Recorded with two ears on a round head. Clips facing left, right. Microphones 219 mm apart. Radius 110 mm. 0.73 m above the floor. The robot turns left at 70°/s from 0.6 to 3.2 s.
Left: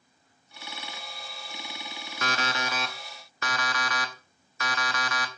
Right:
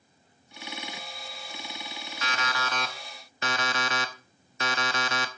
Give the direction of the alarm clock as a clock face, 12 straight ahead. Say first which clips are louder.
Left 3 dB; 10 o'clock.